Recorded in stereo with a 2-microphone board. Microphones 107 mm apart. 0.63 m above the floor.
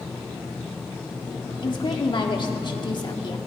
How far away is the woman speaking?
About 1.1 m.